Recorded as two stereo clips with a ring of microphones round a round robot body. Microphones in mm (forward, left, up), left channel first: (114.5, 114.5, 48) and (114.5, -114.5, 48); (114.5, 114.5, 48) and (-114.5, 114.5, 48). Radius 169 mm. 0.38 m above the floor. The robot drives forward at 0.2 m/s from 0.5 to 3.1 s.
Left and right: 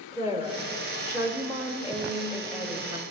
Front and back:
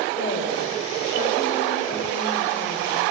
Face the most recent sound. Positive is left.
turn(degrees=-50)